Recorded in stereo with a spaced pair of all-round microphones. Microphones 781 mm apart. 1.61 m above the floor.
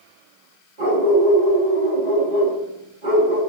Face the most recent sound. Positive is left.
turn(degrees=-65)  # may be behind; listen again after turning